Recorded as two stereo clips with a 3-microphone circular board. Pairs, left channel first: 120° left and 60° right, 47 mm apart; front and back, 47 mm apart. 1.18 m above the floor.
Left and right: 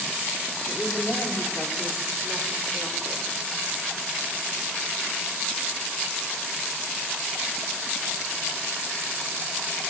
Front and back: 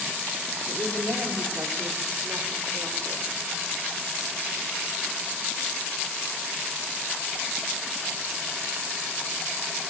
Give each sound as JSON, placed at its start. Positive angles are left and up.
{"t": 0.7, "sound": "a woman speaking", "azimuth_deg": -165, "distance_m": 3.5}